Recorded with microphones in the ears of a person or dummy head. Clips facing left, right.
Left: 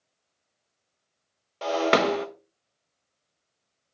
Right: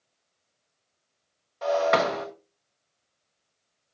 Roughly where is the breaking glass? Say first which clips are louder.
Even; left.